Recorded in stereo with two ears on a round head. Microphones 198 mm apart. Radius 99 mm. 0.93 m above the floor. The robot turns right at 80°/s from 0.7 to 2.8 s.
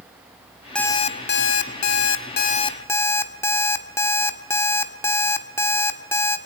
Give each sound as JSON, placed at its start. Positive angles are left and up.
{"t": 0.8, "sound": "an alarm clock", "azimuth_deg": 5, "distance_m": 1.5}